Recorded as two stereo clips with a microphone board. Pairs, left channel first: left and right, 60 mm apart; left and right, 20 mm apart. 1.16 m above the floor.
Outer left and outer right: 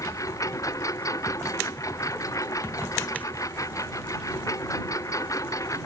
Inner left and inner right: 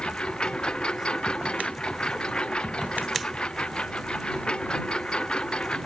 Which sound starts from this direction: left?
A lawn mower, at 0.0 s.